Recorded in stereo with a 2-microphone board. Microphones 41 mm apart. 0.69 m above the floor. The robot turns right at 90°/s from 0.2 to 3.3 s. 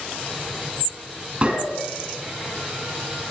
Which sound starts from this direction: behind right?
A gunshot, at 1.4 s.